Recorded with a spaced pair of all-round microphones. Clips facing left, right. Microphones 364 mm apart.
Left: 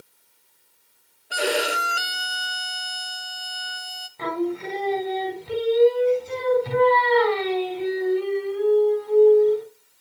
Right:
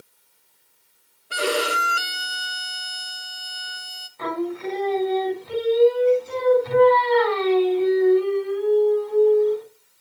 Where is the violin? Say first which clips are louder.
Right 1 dB; 10° right (ahead or behind), 0.7 m.